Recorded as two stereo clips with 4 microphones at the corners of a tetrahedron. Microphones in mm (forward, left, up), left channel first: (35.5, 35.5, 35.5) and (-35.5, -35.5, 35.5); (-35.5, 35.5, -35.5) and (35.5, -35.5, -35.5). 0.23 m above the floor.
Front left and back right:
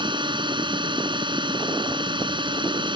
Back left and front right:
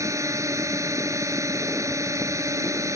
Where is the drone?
100° right.